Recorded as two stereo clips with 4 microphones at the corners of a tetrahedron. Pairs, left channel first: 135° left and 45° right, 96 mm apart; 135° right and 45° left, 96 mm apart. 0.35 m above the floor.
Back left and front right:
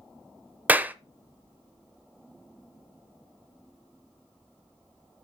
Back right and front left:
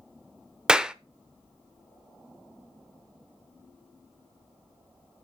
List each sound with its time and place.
0.7 s a clap: 20° right, 0.6 m